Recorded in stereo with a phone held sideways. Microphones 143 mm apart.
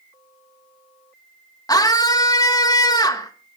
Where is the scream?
25° left (ahead or behind), 1.6 m.